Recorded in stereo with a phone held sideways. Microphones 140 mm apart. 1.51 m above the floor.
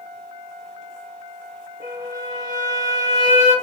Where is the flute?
80° right, 2.0 m.